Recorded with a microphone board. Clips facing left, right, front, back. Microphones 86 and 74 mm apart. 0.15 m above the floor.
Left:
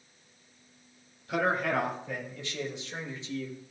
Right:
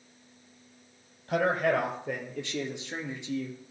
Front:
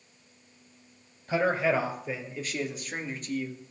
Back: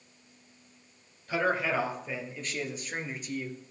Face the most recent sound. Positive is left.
turn(degrees=-105)